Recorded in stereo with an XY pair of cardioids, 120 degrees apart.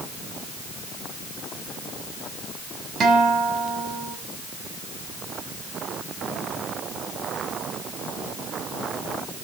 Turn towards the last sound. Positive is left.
turn(degrees=-50)